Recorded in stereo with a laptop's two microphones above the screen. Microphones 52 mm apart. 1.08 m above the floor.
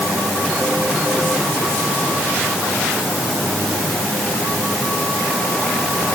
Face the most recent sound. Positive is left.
No sound to turn to.